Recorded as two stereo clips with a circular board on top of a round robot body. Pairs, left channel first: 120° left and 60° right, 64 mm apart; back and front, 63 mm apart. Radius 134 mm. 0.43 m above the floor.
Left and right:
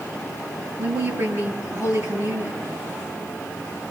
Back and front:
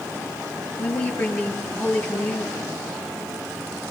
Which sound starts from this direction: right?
A woman speaking, at 0.8 s.